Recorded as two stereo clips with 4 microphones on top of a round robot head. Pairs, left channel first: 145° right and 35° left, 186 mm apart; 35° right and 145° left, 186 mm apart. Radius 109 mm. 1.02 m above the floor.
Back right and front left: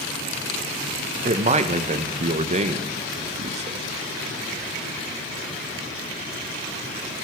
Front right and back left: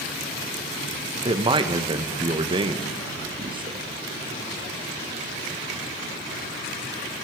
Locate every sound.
1.2 s a man speaking: 85° left, 0.9 m